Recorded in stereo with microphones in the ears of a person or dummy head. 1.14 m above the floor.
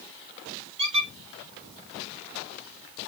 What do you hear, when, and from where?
0.8 s a squeak: 30° right (ahead or behind), 0.9 m